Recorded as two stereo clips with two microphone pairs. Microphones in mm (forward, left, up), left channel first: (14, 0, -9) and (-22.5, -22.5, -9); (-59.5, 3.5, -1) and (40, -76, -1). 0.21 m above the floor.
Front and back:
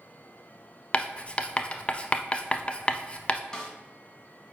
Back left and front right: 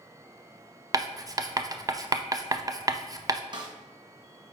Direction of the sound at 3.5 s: 35° right.